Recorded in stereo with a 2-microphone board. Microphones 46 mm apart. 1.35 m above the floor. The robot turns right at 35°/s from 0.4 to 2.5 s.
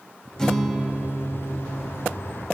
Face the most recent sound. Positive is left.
turn(degrees=-120)